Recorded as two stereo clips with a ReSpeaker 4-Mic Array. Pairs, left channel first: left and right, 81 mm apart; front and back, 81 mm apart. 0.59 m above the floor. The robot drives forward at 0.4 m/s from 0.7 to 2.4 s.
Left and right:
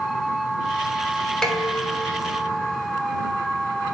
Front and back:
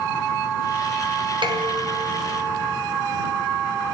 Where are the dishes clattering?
170° left, 4.5 m.